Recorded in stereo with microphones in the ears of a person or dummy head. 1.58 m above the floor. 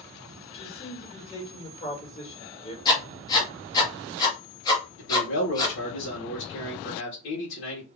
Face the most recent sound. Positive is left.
turn(degrees=70)  # may be behind; listen again after turning